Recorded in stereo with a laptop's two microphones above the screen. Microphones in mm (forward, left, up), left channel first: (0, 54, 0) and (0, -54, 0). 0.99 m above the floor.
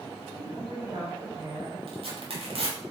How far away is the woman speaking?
About 3.5 m.